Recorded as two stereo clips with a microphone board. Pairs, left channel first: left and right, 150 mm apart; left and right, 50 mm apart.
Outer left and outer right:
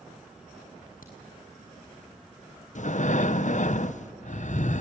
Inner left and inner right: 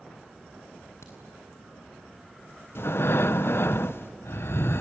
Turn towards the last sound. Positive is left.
turn(degrees=60)  # may be behind; listen again after turning